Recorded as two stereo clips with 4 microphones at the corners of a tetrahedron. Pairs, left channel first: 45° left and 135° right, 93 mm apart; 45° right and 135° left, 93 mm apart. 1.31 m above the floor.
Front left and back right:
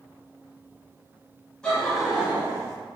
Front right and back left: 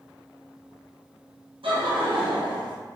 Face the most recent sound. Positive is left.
turn(degrees=170)